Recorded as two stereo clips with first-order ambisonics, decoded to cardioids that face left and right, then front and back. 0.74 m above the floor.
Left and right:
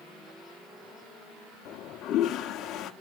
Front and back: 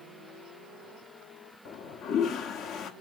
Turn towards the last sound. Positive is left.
turn(degrees=45)